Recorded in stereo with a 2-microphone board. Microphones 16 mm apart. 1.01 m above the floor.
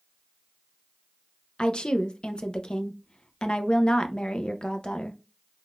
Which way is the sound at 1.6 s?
70° left (ahead or behind).